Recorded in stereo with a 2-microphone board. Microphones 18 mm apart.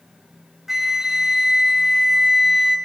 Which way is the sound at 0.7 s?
20° right (ahead or behind).